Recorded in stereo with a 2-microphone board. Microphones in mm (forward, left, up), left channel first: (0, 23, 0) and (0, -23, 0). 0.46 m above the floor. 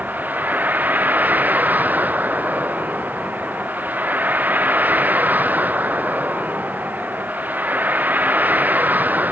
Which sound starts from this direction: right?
A vehicle, at 0.0 s.